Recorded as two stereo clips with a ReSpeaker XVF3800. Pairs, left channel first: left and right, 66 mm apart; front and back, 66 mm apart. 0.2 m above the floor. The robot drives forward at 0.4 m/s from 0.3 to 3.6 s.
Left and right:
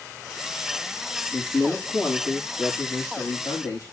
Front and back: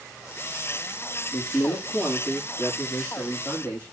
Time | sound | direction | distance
1.3 | a man speaking | 65° left | 6.5 m